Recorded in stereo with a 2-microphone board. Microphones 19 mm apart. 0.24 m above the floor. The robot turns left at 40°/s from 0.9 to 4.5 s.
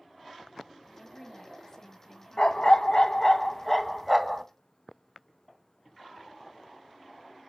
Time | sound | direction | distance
0.9 | a woman speaking | 95° left | 1.4 m
2.4 | a dog barking | 65° left | 0.7 m